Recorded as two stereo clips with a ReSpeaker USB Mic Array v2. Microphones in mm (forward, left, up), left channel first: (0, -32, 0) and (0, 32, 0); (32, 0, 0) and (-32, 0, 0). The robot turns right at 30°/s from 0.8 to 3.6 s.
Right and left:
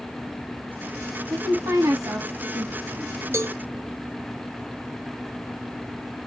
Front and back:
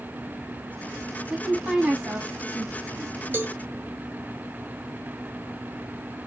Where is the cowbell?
125° left, 0.9 m; by 3.6 s 135° left, 0.9 m.